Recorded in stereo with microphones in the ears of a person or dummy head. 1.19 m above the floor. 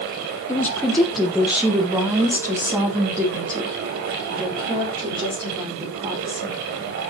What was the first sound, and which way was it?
A woman speaking, 15° left (ahead or behind).